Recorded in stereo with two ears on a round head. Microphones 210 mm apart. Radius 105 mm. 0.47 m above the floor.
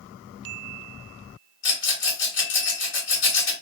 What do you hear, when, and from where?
1.6 s a rattle: 50° left (ahead or behind), 1.9 m